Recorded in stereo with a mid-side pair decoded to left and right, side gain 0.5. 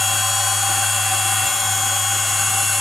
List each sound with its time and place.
0.0 s a machine running: 20° left, 4 m